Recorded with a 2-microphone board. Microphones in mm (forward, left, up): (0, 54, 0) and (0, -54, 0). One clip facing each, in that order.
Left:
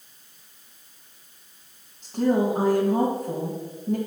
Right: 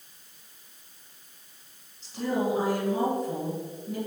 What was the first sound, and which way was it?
A woman speaking, 55° left (ahead or behind).